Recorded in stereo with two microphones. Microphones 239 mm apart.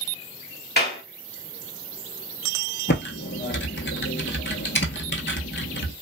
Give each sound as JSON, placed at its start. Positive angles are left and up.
{"t": 0.8, "sound": "a clap", "side_deg": 40, "distance_m": 1.9}
{"t": 2.9, "sound": "typing on a keyboard", "side_deg": 50, "distance_m": 0.8}